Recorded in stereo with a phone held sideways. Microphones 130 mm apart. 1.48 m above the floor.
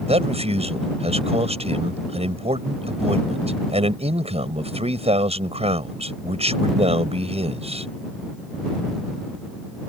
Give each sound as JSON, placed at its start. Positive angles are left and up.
{"t": 0.1, "sound": "a man speaking", "side_deg": -50}